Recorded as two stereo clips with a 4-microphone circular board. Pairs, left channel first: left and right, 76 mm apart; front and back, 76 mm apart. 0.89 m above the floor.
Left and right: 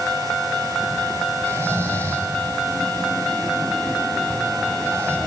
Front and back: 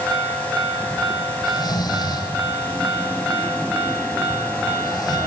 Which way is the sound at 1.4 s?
35° right.